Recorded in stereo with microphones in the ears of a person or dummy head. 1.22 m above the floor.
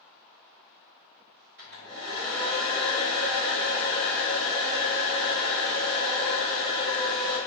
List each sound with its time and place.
1.6 s a hair dryer: 50° right (ahead or behind), 1.2 m